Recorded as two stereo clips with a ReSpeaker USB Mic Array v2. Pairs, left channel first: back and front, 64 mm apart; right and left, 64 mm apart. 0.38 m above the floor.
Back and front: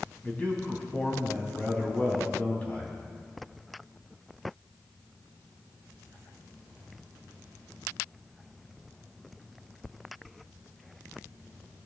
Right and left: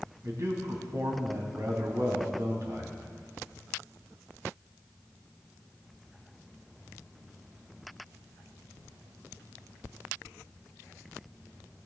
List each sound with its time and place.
0.2 s a man speaking: 115° left, 3 m